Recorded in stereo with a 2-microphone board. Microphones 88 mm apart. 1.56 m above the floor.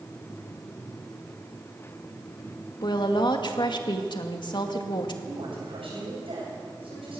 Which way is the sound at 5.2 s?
85° right.